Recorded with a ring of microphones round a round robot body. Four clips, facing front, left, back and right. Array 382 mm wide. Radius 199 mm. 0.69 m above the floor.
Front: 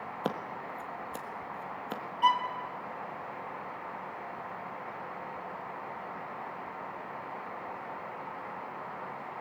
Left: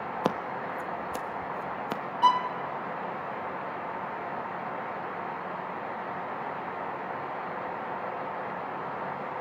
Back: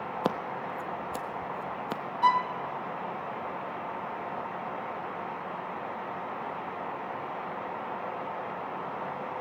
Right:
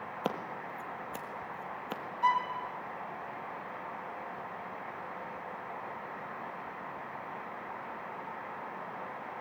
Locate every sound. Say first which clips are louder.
0.2 s scissors: left 6 dB, back 4 dB; 125° left, 1.3 m
2.2 s a violin: left 5 dB, back 2 dB; 100° left, 1.4 m